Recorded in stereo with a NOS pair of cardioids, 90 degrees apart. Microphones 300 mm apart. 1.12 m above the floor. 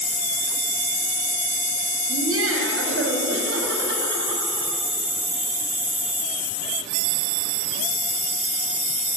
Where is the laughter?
50° right, 7 m; by 4.7 s 35° right, 8 m.